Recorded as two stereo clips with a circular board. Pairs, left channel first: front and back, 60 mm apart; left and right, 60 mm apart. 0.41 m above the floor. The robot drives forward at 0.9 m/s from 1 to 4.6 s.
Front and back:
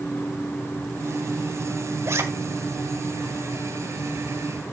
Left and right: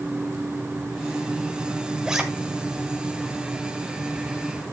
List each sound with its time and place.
2.0 s a zipper: 165° right, 1.4 m; by 2.2 s 170° right, 1.5 m